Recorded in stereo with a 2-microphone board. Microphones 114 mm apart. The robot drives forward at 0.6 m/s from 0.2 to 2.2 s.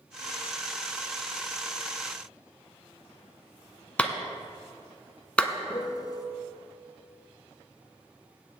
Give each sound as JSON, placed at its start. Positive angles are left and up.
{"t": 4.0, "sound": "a clap", "side_deg": 10, "distance_m": 0.8}
{"t": 5.7, "sound": "a piano", "side_deg": 35, "distance_m": 0.7}